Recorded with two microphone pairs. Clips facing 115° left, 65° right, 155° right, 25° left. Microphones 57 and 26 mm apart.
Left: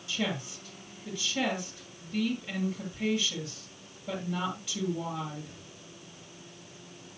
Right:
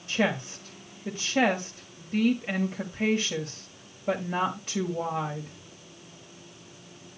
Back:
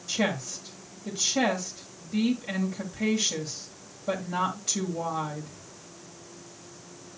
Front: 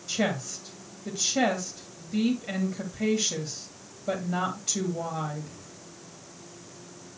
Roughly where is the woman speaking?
Ahead right.